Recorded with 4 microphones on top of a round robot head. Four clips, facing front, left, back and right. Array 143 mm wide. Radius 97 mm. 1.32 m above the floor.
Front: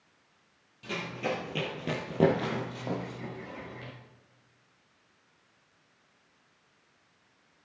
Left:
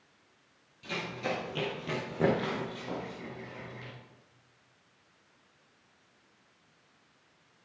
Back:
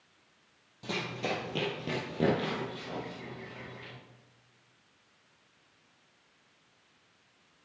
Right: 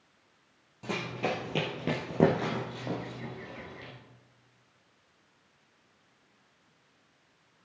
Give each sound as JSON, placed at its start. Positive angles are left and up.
{"t": 0.8, "sound": "running footsteps", "azimuth_deg": -120, "distance_m": 2.5}